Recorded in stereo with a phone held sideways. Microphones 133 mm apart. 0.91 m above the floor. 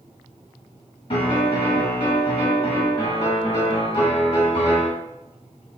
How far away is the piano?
About 1.4 m.